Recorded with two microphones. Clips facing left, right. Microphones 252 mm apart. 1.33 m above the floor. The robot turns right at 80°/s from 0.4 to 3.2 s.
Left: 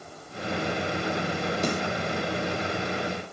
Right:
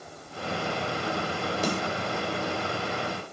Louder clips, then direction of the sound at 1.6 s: Even; centre (ahead or behind).